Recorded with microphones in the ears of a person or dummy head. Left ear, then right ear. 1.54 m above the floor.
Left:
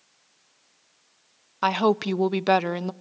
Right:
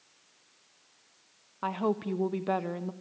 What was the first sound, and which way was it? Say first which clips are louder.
A woman speaking: left 9 dB; 70° left (ahead or behind).